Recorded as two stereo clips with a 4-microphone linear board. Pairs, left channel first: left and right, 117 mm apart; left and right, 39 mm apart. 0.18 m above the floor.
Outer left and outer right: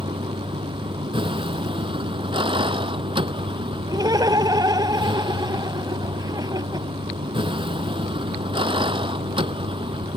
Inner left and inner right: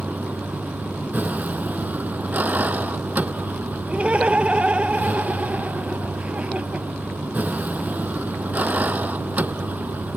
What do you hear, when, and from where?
0.0 s a vehicle: 50° right (ahead or behind)
3.9 s laughter: 35° right (ahead or behind)